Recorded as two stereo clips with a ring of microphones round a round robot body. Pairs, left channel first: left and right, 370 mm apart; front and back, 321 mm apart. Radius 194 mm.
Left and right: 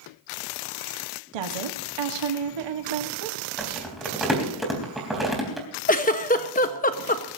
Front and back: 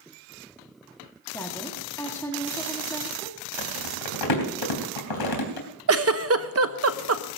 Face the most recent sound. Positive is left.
turn(degrees=150)